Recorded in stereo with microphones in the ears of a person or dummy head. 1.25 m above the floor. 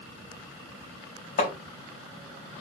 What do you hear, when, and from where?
1.4 s hammering: 40° left (ahead or behind), 2.5 m